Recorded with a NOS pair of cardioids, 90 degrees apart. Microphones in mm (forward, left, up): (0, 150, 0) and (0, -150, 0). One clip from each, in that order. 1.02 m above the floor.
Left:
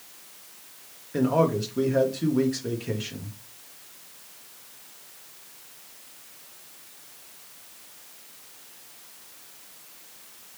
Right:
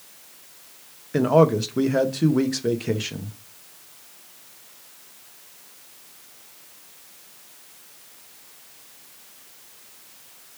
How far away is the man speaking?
About 0.8 m.